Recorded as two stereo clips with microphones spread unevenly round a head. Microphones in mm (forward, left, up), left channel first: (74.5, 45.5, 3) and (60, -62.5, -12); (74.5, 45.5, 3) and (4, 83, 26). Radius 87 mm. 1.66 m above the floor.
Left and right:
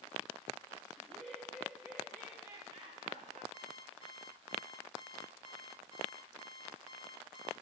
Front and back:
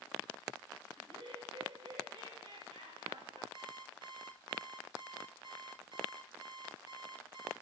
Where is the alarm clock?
170° right, 3.5 m.